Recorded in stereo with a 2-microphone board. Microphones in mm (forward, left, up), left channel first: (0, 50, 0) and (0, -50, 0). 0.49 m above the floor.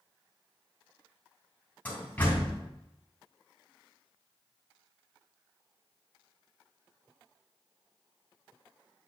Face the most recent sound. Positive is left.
turn(degrees=15)  # may be behind; listen again after turning